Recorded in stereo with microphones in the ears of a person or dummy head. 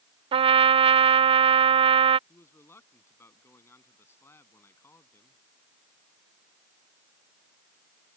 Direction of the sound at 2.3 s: 15° left (ahead or behind).